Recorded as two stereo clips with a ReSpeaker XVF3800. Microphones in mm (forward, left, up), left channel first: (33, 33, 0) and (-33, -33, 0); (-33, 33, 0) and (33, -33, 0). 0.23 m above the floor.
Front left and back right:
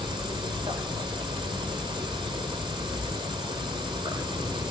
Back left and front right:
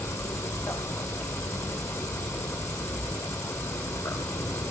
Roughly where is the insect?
Behind.